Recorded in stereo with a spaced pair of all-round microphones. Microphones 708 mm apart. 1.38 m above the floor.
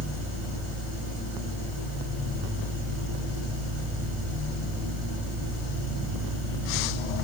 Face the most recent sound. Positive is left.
turn(degrees=-70)  # may be behind; listen again after turning